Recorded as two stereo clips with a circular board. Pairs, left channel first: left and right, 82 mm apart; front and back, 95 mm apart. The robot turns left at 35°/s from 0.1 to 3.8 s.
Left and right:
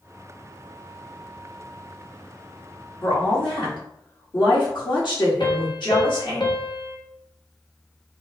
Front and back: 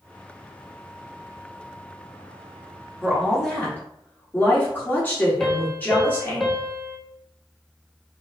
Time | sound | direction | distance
3.0 | a woman speaking | 95° left | 1.8 m
5.4 | a piano | 85° left | 0.7 m